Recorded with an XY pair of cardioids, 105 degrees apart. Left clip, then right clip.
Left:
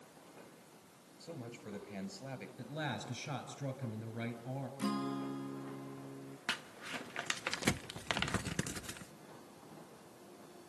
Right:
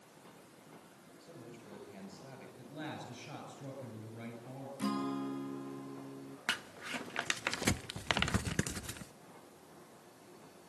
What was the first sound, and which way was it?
A man speaking, 50° left.